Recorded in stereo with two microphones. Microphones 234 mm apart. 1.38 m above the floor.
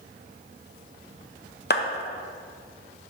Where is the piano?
No piano in this recording.